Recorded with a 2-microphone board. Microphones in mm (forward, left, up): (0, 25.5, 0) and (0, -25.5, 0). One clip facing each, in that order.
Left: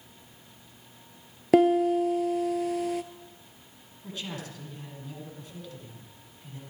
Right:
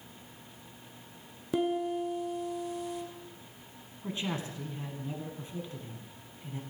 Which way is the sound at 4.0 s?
25° right (ahead or behind).